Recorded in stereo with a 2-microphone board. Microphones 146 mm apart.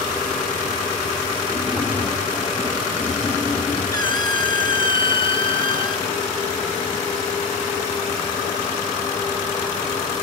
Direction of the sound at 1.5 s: 5° left (ahead or behind).